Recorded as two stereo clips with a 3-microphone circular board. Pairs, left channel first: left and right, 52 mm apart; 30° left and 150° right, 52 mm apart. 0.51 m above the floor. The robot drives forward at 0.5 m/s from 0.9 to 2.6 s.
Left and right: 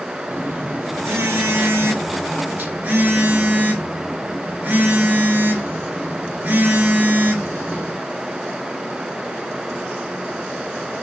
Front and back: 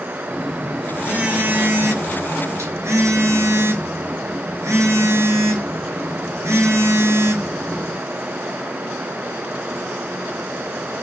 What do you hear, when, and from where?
0.3 s a phone buzzing: 75° right, 0.7 m; by 8.0 s 145° right, 1.0 m